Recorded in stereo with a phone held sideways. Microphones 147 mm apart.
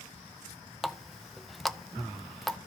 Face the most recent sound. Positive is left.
turn(degrees=0)  # may be behind; listen again after turning